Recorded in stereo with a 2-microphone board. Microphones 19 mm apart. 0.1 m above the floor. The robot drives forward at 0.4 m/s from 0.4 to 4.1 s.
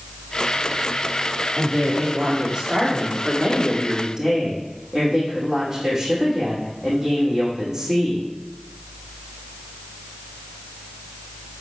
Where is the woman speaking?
45° right (ahead or behind), 3 m; by 8.3 s 35° right (ahead or behind), 3.5 m.